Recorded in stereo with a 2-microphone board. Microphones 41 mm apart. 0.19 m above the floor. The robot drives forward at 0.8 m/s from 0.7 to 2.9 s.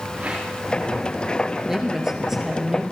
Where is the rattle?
25° right (ahead or behind), 8.5 m.